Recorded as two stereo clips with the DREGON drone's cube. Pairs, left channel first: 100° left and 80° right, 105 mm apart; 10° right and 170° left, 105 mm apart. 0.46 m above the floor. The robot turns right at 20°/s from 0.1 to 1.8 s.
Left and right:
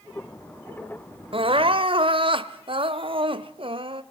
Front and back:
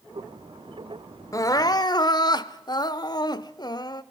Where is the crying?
70° right, 0.8 m; by 4.0 s 60° right, 0.8 m.